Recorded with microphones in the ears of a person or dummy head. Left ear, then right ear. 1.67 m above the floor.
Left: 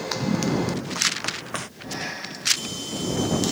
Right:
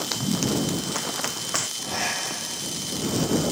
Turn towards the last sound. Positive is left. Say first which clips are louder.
# right 5 dB
turn(degrees=-30)  # may be behind; listen again after turning